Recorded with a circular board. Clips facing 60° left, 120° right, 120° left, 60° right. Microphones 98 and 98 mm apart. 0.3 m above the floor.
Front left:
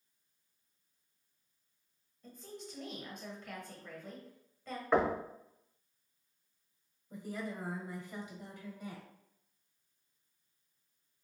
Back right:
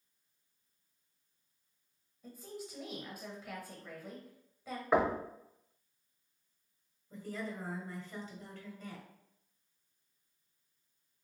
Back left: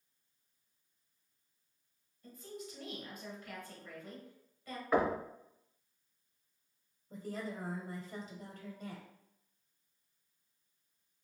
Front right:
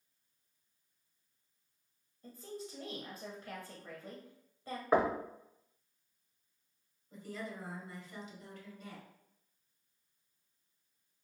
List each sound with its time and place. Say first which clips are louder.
2.2 s a woman speaking: back right 2 dB, front right 2 dB; 45° right, 1.3 m
4.9 s knocking: even, front right 1 dB; 45° right, 0.7 m
7.1 s a woman speaking: even, back left 2 dB; 125° left, 1.2 m